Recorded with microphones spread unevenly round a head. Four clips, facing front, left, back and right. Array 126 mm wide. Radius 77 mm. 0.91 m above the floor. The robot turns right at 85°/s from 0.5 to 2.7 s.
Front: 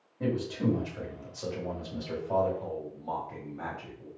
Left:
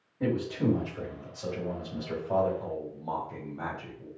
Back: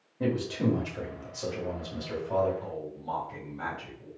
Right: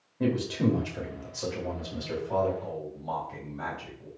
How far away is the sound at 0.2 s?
About 2.5 m.